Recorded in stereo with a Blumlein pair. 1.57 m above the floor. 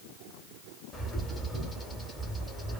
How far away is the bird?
About 0.9 m.